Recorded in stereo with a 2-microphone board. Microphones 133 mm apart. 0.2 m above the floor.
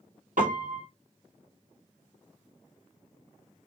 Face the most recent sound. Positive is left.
turn(degrees=-80)